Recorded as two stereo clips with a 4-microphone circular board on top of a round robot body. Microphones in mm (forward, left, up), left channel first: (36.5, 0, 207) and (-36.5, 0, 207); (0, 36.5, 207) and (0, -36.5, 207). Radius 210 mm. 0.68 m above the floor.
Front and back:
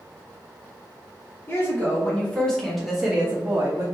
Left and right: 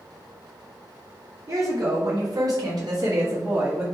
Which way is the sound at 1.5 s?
50° right.